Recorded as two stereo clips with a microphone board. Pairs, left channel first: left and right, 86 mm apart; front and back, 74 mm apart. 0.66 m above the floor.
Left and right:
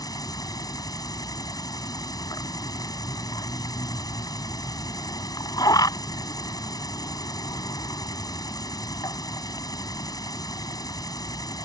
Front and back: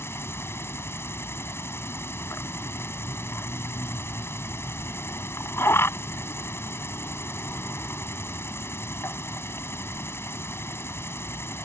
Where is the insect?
55° left.